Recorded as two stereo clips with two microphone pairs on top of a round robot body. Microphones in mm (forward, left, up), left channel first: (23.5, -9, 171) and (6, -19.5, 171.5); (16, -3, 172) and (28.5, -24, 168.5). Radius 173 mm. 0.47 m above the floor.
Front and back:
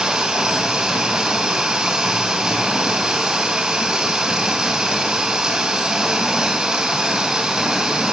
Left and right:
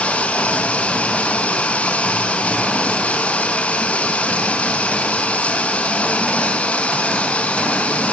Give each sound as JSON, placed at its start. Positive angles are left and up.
{"t": 0.0, "sound": "running water", "azimuth_deg": 145, "distance_m": 6.0}